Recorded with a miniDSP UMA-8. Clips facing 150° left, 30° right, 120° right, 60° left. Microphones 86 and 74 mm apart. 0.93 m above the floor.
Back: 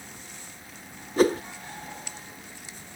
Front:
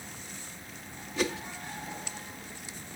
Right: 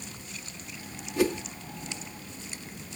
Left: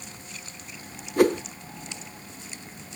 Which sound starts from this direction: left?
A whoosh, at 1.2 s.